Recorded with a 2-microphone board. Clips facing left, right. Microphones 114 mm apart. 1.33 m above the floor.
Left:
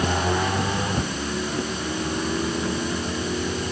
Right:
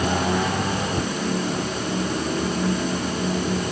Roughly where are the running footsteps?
No running footsteps in this recording.